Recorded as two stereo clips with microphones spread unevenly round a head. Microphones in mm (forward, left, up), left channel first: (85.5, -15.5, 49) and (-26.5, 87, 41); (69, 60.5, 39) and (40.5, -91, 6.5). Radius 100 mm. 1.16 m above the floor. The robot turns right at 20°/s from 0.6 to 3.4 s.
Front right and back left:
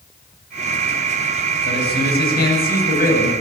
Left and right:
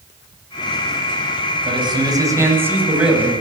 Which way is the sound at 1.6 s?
45° right.